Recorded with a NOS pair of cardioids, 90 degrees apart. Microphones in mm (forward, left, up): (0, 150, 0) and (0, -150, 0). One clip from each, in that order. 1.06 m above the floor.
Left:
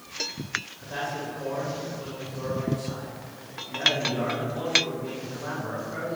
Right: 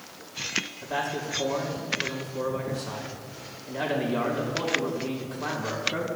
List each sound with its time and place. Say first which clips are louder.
0.8 s a man speaking: right 2 dB; 60° right, 5.5 m